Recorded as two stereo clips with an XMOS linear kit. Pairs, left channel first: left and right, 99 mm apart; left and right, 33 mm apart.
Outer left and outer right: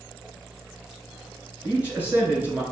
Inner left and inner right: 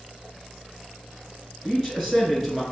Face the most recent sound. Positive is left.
turn(degrees=-15)  # may be behind; listen again after turning